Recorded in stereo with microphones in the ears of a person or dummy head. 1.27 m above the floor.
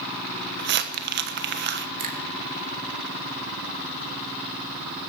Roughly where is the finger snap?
Right.